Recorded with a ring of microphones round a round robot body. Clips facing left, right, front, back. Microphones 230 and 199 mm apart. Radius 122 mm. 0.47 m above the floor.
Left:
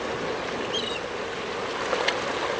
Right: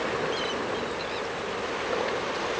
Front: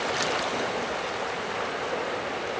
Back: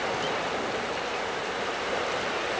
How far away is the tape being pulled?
No tape being pulled in this recording.